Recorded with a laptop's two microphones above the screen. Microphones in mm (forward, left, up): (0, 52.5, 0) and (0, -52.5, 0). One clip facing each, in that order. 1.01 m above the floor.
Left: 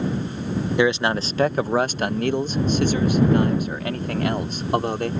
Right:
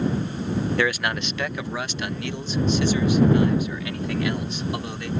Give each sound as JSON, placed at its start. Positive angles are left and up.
{"t": 0.8, "sound": "a man speaking", "side_deg": 20}